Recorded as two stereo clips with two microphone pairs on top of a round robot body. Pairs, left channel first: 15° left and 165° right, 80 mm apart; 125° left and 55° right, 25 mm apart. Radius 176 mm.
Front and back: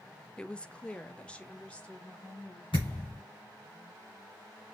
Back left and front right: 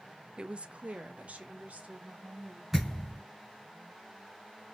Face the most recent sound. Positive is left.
turn(degrees=25)